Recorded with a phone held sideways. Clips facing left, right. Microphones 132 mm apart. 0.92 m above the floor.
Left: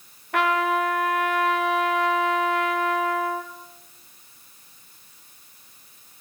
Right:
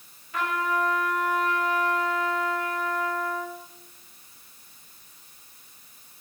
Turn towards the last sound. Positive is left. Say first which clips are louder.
# left 5 dB
turn(degrees=70)  # may be behind; listen again after turning